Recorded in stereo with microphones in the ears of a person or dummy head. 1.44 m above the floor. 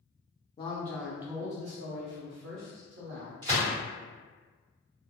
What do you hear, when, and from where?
0.6 s a man speaking: 25° left (ahead or behind), 0.6 m; by 3.3 s 85° right, 1.4 m
3.4 s a gunshot: 30° right (ahead or behind), 1.2 m